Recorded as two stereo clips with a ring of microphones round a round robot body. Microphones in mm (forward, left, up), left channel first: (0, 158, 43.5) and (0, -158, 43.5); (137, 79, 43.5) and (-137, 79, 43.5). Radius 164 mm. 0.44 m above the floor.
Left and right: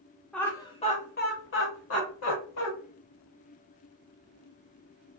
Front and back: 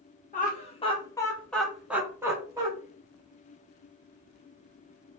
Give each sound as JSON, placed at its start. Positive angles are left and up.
{"t": 0.3, "sound": "laughter", "azimuth_deg": 5, "distance_m": 0.9}